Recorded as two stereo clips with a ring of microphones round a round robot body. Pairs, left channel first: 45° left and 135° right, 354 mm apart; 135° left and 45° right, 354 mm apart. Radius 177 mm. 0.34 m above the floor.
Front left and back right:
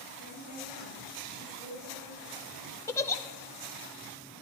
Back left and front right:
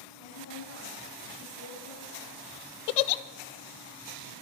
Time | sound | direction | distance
0.2 | a woman speaking | 165° left | 8.5 m
2.9 | a giggle | 125° left | 0.6 m